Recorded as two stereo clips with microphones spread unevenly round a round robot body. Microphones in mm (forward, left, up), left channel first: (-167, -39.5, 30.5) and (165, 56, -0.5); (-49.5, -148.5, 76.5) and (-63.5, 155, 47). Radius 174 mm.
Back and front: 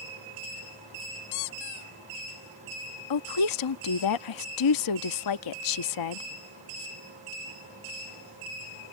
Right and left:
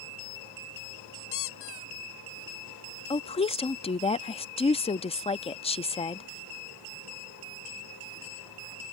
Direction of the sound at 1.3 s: 140° right.